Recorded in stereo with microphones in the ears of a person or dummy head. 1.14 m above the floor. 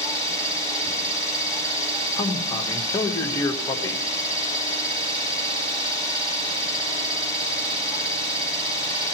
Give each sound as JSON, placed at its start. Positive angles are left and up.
{"t": 0.0, "sound": "an engine running", "side_deg": -30, "distance_m": 4.5}
{"t": 2.2, "sound": "a man speaking", "side_deg": 15, "distance_m": 1.2}